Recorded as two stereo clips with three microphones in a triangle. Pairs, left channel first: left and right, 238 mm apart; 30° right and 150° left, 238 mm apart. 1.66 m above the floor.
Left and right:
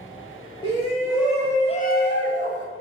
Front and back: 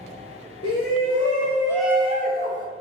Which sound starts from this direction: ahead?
A shout, at 0.6 s.